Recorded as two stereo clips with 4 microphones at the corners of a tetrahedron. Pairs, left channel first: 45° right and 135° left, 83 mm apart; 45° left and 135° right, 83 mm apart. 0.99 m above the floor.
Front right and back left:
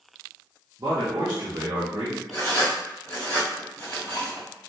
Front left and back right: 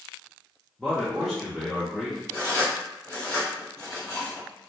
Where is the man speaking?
130° left, 0.6 m.